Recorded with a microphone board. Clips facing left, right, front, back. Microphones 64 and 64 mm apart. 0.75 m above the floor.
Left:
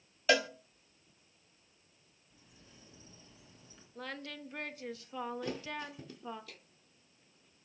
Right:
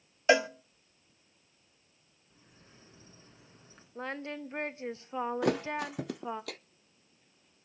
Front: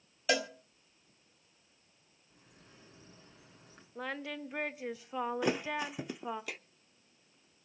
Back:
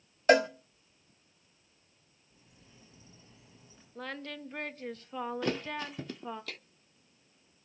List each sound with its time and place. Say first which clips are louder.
0.3 s a cowbell: right 5 dB, back 9 dB; 155° right, 0.9 m
2.3 s a bird: right 1 dB, front 2 dB; 40° right, 10 m
4.0 s singing: right 6 dB, front 1 dB; 70° right, 0.8 m
5.4 s a thud: right 9 dB, front 1 dB; 75° right, 0.6 m